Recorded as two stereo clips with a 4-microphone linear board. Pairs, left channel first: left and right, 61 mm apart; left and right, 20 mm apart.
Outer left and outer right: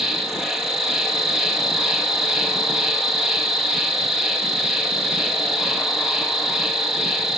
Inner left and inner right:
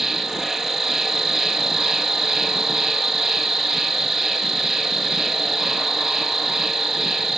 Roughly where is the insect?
Centre.